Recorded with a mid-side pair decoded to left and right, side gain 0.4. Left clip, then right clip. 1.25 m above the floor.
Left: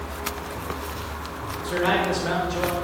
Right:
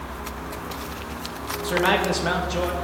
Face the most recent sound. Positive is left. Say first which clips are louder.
# right 2 dB
turn(degrees=-45)